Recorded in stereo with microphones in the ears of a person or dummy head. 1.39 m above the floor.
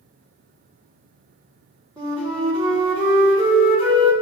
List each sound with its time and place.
2.0 s a flute: 20° right (ahead or behind), 1.3 m